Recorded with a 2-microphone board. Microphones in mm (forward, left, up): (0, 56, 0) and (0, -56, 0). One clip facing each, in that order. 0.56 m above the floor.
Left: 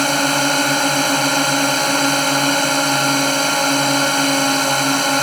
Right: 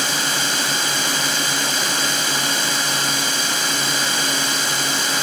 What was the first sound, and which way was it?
A drone, 55° left (ahead or behind).